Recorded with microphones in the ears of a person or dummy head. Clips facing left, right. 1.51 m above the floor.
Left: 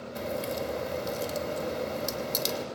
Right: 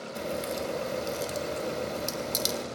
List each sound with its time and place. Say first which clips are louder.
0.1 s a crack: even; 10° right (ahead or behind), 3 m